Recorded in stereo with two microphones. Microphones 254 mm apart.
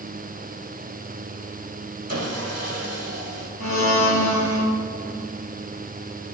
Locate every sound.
2.1 s sawing: 65° right (ahead or behind), 1.8 m
3.6 s a blender: 85° left, 2.0 m